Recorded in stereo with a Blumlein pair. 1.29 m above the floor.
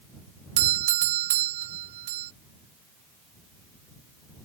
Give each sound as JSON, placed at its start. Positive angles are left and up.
{"t": 0.6, "sound": "a doorbell", "azimuth_deg": -55}